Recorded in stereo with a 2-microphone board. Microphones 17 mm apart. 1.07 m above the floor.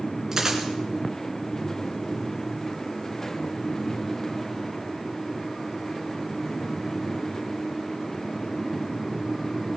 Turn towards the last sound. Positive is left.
turn(degrees=-20)  # may be behind; listen again after turning